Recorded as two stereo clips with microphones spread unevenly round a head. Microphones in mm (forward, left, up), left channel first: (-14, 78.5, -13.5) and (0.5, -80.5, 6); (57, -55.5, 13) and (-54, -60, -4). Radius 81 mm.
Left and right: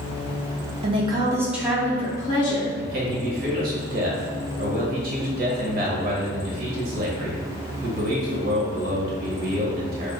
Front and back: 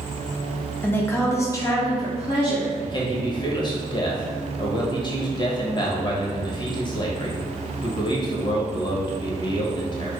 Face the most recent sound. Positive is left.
turn(degrees=-45)